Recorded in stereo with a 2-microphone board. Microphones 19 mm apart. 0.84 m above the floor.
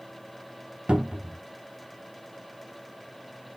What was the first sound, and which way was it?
A cupboard door, 65° right (ahead or behind).